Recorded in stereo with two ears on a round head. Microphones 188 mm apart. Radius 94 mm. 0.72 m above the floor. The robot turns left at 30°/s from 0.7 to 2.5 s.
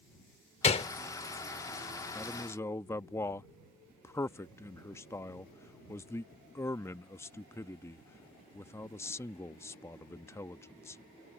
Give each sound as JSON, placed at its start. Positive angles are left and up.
{"t": 0.6, "sound": "a gunshot", "side_deg": 30}
{"t": 2.1, "sound": "a man speaking", "side_deg": 5}